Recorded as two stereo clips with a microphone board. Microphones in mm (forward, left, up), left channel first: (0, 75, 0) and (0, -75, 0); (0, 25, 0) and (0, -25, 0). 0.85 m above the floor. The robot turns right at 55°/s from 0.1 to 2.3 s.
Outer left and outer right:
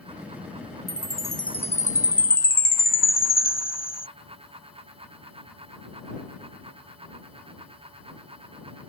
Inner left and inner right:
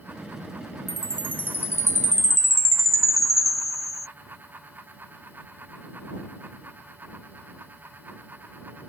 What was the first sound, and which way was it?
A chime, straight ahead.